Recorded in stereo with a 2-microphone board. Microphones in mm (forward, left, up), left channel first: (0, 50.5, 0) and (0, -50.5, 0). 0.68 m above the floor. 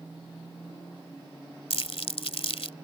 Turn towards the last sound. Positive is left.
turn(degrees=75)  # may be behind; listen again after turning